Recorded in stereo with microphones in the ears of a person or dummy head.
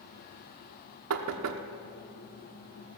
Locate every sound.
1.1 s knocking: 75° right (ahead or behind), 0.9 m